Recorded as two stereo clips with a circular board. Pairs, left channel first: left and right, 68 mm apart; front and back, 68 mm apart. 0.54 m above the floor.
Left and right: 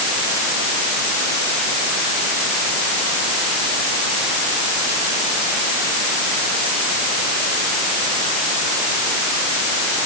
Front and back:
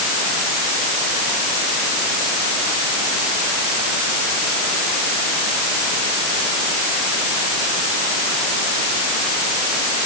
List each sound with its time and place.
Only background noise.